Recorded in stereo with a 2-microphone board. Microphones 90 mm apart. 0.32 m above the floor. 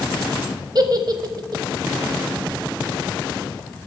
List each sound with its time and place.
0.8 s a giggle: 50° right (ahead or behind), 1.0 m